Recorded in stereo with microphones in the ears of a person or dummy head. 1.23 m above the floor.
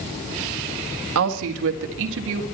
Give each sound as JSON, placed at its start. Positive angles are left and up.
{"t": 1.1, "sound": "a woman speaking", "side_deg": -85, "distance_m": 1.7}